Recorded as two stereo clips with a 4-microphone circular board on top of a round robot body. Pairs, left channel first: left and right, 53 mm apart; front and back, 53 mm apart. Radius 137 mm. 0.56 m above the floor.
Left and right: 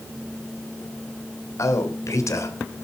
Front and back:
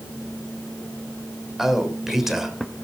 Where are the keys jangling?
I don't hear keys jangling.